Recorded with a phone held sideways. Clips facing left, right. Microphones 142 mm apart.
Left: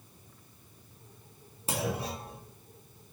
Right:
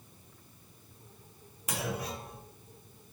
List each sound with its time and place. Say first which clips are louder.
1.7 s a clunk: left 3 dB; 30° left (ahead or behind), 2.5 m